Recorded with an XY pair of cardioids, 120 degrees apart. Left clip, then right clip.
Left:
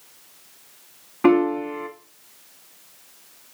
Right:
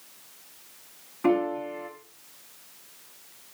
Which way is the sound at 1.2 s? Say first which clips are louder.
Left 7 dB; 55° left.